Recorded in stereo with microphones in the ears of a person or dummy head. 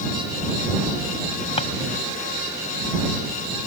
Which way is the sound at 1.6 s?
35° left (ahead or behind).